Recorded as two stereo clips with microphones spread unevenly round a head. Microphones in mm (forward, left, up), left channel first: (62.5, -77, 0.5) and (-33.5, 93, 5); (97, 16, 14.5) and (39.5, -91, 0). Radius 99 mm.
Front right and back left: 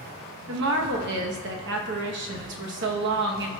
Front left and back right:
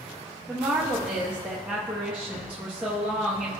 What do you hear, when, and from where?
0.5 s a woman speaking: 155° left, 1.0 m